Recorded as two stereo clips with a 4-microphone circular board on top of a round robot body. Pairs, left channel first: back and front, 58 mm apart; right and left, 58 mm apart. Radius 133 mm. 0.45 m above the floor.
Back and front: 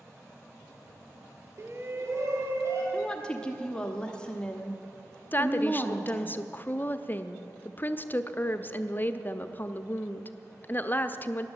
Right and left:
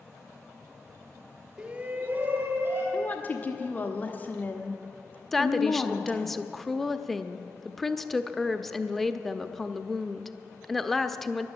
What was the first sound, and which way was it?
A shout, 20° left.